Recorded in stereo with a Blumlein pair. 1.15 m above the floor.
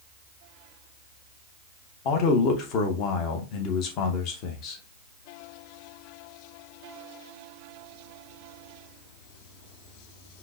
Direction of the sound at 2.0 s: 40° left.